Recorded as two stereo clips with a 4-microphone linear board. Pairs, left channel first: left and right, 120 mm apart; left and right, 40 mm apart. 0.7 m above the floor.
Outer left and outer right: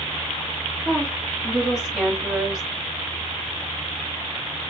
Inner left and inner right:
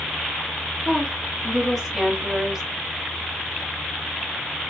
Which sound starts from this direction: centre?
A woman speaking, at 0.8 s.